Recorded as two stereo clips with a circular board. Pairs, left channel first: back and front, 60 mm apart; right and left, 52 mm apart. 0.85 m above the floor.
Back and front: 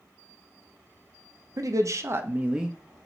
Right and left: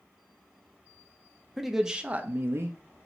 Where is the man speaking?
5° right, 0.6 m; by 2.8 s 85° left, 0.5 m.